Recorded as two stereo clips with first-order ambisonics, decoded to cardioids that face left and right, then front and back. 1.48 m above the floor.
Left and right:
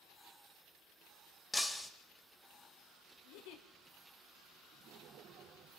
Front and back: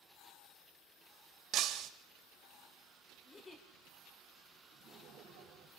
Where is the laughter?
125° right, 7 m.